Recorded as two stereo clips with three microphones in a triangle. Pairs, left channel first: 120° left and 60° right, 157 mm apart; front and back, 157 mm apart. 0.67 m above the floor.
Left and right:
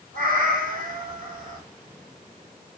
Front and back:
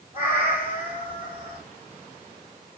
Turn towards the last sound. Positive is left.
turn(degrees=-35)